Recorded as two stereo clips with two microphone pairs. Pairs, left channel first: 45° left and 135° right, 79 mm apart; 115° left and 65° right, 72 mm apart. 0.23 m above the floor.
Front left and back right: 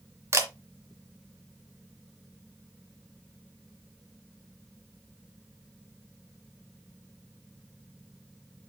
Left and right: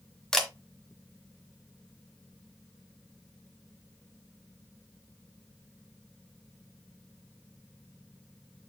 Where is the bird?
I don't hear a bird.